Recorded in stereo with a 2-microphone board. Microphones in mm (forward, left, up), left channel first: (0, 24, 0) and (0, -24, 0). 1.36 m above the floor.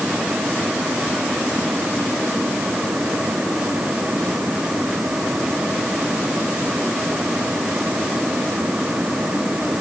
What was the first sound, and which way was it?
Only background noise.